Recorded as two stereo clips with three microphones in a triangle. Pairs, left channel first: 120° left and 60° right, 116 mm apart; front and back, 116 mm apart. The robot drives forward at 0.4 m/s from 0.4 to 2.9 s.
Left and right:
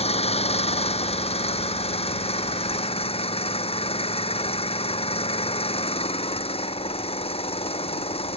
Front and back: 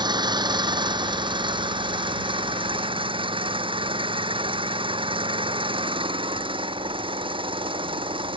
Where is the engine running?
135° left; by 8.4 s 145° left.